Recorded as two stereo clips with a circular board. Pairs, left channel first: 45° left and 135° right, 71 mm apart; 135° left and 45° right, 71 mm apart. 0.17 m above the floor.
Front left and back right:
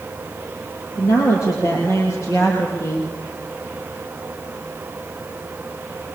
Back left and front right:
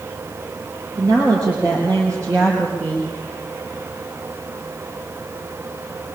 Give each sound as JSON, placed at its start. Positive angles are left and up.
{"t": 0.9, "sound": "a woman speaking", "azimuth_deg": -5, "distance_m": 4.5}